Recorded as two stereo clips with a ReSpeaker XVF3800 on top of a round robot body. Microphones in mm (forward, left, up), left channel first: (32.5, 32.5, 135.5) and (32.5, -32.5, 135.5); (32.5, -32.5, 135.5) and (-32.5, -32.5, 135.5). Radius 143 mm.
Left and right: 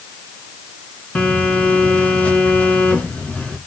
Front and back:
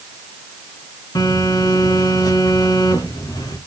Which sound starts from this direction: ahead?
A phone buzzing, at 1.1 s.